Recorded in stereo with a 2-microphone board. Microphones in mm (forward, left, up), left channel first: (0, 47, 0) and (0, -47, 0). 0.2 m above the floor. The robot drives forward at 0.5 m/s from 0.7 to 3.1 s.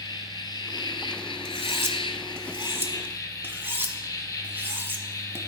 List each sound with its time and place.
0.0 s an insect: 50° left (ahead or behind), 0.8 m; by 5.5 s 40° left (ahead or behind), 0.9 m
1.4 s cutlery clinking: 25° right (ahead or behind), 0.8 m; by 5.4 s 20° right (ahead or behind), 1.0 m